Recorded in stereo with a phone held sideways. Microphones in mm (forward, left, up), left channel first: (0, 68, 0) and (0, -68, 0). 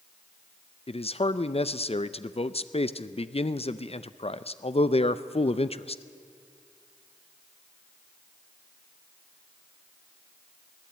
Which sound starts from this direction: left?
A man speaking, at 0.9 s.